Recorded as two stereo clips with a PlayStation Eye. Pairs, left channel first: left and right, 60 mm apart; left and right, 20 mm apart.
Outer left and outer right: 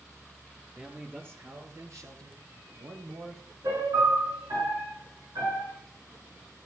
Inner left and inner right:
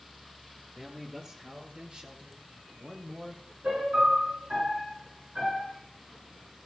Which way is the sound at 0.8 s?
25° right (ahead or behind).